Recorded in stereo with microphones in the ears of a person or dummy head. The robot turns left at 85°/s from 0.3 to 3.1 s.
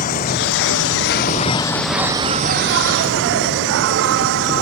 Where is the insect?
135° left; by 4.6 s 105° right.